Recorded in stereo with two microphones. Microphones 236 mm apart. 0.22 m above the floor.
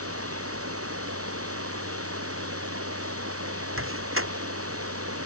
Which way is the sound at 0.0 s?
70° right (ahead or behind).